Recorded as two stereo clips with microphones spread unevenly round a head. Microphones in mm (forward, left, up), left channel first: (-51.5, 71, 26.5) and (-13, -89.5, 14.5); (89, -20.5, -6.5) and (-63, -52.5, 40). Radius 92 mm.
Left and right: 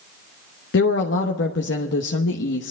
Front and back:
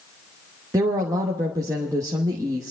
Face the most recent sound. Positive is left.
turn(degrees=115)